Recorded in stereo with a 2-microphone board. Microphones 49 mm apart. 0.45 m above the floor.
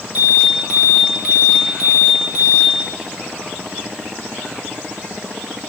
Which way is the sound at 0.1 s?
30° right (ahead or behind).